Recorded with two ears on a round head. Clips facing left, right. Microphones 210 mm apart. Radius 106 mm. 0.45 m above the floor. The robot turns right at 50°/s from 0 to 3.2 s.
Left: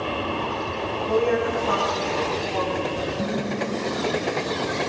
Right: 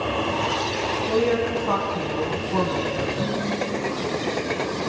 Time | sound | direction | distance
1.0 | a woman speaking | 155° right | 4 m
3.2 | dishes clattering | 15° left (ahead or behind) | 5 m